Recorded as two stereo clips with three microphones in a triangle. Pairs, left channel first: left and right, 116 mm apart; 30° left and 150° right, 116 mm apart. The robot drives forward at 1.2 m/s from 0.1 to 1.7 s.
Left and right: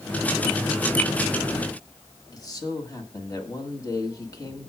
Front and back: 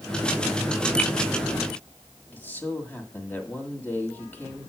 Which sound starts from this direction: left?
A man speaking, at 2.3 s.